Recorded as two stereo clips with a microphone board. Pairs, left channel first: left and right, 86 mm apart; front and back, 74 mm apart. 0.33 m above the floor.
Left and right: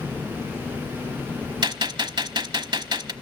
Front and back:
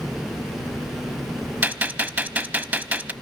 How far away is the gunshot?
About 0.8 m.